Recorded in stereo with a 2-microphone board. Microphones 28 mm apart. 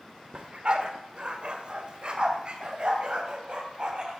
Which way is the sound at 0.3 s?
40° right (ahead or behind).